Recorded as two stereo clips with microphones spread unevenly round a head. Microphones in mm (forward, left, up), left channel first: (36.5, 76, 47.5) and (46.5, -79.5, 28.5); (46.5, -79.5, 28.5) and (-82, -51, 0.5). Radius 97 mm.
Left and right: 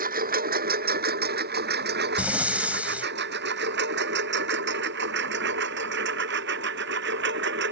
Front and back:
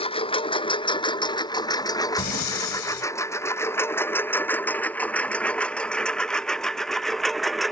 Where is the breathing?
5° right.